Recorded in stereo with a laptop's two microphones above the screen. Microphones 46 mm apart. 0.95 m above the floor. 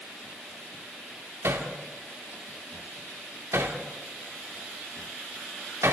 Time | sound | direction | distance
1.4 | hammering | 75° right (ahead or behind) | 2 m